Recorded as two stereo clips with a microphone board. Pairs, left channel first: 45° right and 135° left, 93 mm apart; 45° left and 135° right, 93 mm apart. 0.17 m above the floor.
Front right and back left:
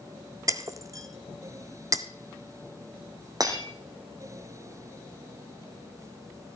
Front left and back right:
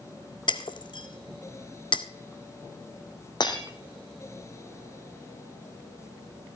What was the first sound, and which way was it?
Breaking glass, 80° left.